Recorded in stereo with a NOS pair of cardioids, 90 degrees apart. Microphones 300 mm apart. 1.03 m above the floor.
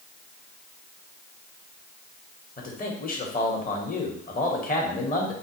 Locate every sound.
2.6 s a man speaking: 30° left, 1.2 m